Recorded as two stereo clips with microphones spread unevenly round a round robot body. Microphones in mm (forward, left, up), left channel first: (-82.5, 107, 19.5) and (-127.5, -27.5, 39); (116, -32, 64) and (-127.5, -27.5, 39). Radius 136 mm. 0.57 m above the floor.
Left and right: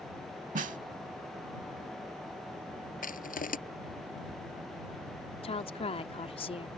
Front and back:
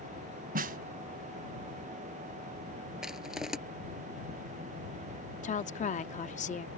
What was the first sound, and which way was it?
A snare drum, 125° right.